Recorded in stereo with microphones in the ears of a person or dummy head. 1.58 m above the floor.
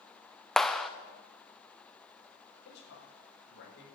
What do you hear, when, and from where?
0.6 s a clap: 5° left (ahead or behind), 0.7 m
2.6 s a man speaking: 65° left (ahead or behind), 5 m